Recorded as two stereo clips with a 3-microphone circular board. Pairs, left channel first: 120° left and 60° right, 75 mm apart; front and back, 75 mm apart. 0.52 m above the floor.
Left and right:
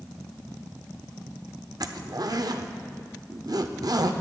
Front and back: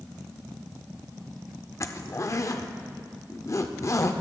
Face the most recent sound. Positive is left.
turn(degrees=-40)